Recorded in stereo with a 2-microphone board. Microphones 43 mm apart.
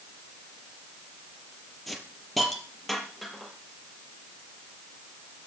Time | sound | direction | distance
1.9 | a hiss | 5° left (ahead or behind) | 5 m